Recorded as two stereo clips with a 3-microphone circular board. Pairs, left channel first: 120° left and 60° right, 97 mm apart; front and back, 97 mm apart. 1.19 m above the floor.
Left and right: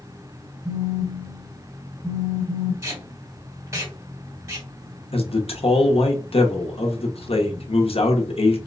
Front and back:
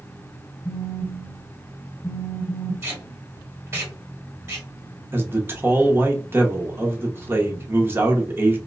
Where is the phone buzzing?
30° left, 1.2 m.